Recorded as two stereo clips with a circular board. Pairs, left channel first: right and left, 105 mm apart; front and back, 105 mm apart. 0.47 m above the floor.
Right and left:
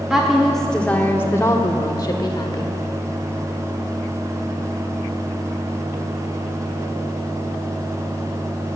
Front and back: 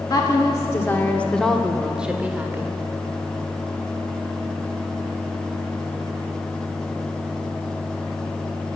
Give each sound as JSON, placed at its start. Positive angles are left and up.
{"t": 0.1, "sound": "a woman speaking", "azimuth_deg": 10, "distance_m": 1.1}